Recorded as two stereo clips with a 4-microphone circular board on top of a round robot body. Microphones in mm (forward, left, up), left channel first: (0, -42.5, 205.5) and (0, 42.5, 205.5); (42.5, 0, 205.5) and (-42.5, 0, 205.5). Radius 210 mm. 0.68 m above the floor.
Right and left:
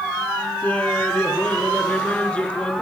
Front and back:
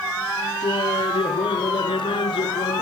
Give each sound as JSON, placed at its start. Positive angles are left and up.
{"t": 0.6, "sound": "laughter", "azimuth_deg": -15}